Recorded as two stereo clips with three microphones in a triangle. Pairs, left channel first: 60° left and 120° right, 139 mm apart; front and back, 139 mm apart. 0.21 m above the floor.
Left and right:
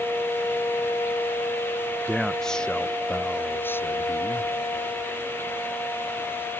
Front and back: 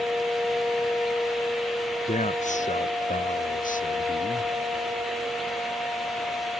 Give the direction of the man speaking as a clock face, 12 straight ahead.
1 o'clock.